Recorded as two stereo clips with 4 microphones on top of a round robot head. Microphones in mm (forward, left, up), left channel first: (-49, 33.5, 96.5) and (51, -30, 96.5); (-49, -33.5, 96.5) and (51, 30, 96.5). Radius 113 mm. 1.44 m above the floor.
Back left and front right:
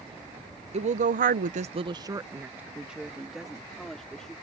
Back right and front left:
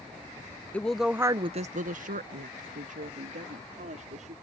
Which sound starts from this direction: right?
A woman speaking, at 0.7 s.